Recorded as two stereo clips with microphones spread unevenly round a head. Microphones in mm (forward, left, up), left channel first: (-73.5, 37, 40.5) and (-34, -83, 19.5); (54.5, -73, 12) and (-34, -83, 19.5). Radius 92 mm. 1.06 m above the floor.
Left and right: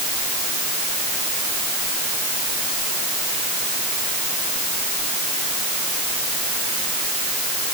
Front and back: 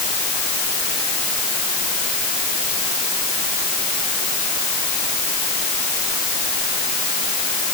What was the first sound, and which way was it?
Only background noise.